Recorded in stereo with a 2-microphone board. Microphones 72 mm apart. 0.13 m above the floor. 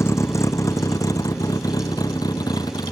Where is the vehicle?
40° left (ahead or behind); by 2.9 s 65° left (ahead or behind).